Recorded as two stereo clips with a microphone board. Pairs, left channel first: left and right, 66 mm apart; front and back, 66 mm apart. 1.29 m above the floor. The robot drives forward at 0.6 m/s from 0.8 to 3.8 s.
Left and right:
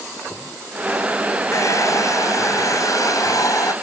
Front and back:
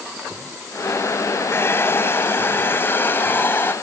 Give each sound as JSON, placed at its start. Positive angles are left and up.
{"t": 1.5, "sound": "a hair dryer", "azimuth_deg": 55}